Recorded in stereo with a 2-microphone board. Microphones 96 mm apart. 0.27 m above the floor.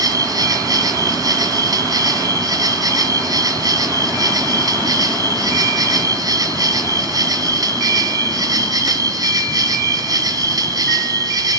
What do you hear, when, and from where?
0.0 s an insect: 45° right (ahead or behind), 1.1 m